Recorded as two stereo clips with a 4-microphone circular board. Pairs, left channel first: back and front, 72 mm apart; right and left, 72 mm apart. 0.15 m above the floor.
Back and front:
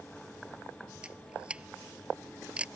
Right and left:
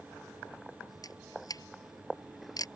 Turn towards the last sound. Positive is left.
turn(degrees=-70)